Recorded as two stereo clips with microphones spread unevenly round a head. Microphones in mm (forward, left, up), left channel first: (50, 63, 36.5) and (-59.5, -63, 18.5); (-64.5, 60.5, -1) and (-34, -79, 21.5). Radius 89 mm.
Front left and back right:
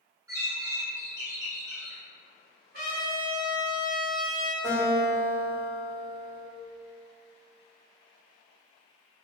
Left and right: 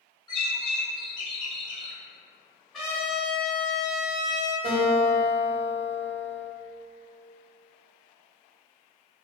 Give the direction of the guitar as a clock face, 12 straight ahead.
2 o'clock.